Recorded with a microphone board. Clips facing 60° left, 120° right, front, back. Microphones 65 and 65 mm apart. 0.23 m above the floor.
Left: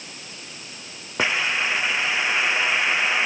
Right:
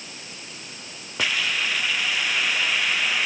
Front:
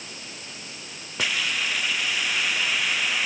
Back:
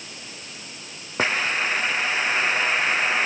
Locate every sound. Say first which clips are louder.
1.2 s a hiss: left 3 dB, back 4 dB; 125° left